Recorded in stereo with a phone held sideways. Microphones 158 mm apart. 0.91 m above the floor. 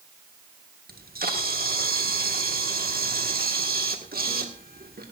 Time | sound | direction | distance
0.9 | a camera shutter | 80° right | 1.8 m